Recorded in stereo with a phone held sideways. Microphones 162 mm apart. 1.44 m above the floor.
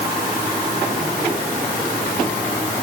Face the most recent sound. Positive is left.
No sound to turn to.